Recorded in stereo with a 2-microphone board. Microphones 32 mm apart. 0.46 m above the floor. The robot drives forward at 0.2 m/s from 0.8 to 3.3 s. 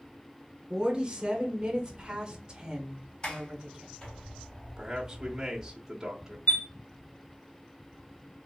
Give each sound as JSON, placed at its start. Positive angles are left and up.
{"t": 0.7, "sound": "a woman speaking", "side_deg": -30, "distance_m": 1.0}
{"t": 3.2, "sound": "a sliding door", "side_deg": 30, "distance_m": 1.9}
{"t": 4.8, "sound": "a man speaking", "side_deg": -15, "distance_m": 1.0}
{"t": 6.5, "sound": "a chime", "side_deg": 55, "distance_m": 0.7}